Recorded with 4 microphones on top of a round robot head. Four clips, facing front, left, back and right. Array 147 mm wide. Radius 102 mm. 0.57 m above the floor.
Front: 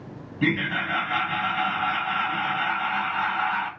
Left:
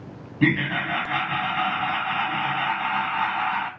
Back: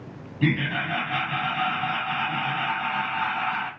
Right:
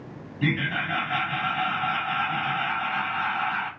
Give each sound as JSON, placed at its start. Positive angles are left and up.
{"t": 0.4, "sound": "laughter", "azimuth_deg": 80, "distance_m": 1.6}